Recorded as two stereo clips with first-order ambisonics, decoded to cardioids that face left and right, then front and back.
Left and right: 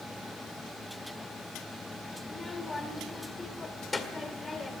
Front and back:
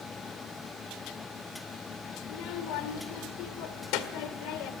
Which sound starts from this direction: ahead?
A child speaking, at 2.2 s.